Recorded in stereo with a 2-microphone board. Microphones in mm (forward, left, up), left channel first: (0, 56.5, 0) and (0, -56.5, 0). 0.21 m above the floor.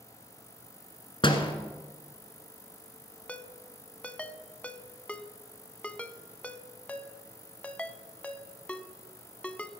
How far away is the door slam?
About 1.5 m.